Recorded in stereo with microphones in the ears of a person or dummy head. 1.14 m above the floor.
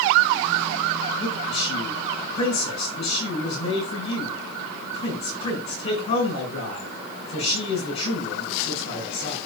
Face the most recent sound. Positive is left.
turn(degrees=35)  # may be behind; listen again after turning